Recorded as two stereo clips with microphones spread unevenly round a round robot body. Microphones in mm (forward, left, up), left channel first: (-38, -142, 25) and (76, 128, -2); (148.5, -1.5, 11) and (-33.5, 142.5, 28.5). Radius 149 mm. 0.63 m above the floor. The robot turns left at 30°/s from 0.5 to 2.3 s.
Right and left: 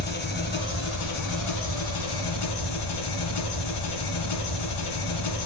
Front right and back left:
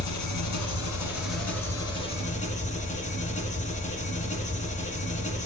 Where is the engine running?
55° right, 2.5 m; by 5.5 s 110° right, 2.5 m.